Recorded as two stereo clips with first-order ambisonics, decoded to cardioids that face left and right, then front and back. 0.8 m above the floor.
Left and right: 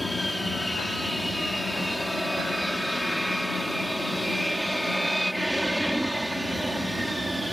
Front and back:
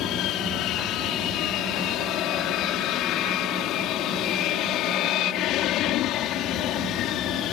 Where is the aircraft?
10° left; by 7.5 s 5° right.